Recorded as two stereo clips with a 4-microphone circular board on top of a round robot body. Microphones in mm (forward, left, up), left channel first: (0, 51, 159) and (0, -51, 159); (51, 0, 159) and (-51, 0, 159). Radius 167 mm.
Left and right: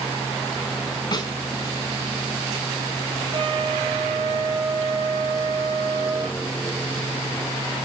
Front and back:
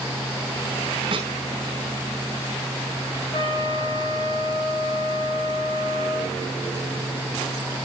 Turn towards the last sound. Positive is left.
turn(degrees=-45)